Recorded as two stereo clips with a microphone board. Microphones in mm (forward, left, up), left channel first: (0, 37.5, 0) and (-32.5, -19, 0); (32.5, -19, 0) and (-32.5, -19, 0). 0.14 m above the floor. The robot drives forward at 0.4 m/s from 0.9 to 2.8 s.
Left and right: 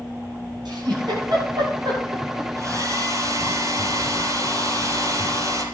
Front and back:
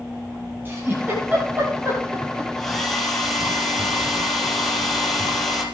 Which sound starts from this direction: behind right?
A giggle, at 0.7 s.